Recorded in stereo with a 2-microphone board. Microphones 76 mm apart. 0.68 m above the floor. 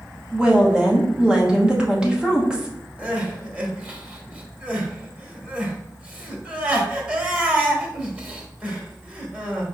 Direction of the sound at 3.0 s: 15° right (ahead or behind).